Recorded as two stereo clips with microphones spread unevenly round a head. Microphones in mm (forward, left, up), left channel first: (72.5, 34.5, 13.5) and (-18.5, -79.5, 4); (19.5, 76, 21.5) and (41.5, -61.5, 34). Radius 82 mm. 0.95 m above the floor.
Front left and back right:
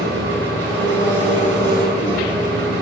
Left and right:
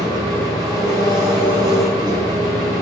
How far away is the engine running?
About 7 m.